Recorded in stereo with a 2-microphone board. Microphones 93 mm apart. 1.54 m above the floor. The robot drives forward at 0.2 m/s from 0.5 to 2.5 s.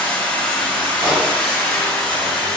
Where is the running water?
15° left (ahead or behind), 1.2 m; by 2.6 s 10° left (ahead or behind), 1.5 m.